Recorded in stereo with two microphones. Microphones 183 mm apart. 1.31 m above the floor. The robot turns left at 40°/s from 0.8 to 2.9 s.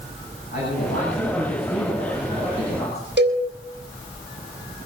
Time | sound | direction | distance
0.5 | a man speaking | 120° left | 7 m
3.2 | a cowbell | 75° right (ahead or behind) | 4 m